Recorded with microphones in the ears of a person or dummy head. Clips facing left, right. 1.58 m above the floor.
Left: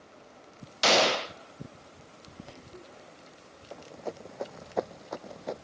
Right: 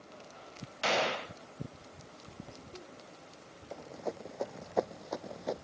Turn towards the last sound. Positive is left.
turn(degrees=-5)  # may be behind; listen again after turning